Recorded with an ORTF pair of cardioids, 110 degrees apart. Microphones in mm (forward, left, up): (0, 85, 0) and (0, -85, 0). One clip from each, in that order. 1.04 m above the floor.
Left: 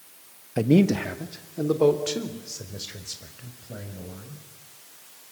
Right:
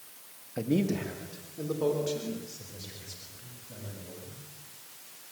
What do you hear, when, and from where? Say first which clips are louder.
0.6 s a man speaking: left 8 dB; 45° left, 1.3 m; by 4.4 s 55° left, 6.5 m